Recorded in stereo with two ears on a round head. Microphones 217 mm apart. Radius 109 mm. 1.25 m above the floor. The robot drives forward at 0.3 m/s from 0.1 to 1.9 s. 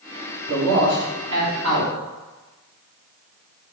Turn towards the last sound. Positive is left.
turn(degrees=-65)  # may be behind; listen again after turning